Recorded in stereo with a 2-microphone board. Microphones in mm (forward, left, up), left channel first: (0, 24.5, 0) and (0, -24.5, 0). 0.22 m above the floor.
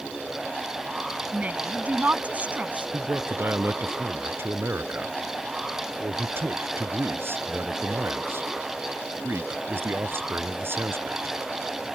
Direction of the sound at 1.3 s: 30° right (ahead or behind).